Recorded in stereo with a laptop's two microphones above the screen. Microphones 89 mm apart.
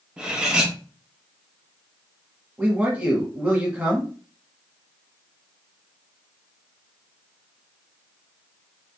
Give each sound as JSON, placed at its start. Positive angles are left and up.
{"t": 0.2, "sound": "cutlery clinking", "side_deg": -10, "distance_m": 0.9}
{"t": 2.6, "sound": "a man speaking", "side_deg": -20, "distance_m": 1.1}